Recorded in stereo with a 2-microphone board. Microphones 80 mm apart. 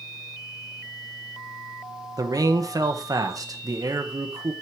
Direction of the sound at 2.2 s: 50° right (ahead or behind).